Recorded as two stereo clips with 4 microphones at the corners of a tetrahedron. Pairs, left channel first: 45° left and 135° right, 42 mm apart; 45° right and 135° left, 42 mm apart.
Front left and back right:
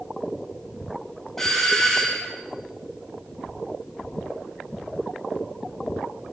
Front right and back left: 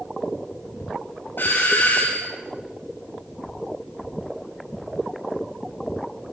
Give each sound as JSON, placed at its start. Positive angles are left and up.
{"t": 1.4, "sound": "a doorbell", "azimuth_deg": -40, "distance_m": 3.5}